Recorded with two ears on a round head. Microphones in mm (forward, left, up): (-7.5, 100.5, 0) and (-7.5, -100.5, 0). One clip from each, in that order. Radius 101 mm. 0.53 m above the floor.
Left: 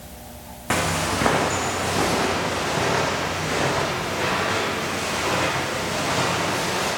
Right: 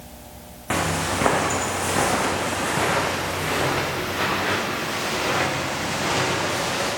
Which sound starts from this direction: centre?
Footsteps, at 0.7 s.